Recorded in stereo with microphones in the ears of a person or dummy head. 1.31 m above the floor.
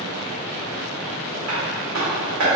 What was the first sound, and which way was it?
Tapping, 65° right (ahead or behind).